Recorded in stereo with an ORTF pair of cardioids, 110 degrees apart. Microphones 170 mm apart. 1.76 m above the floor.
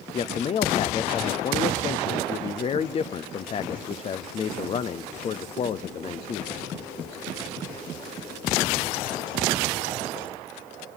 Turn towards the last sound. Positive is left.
turn(degrees=35)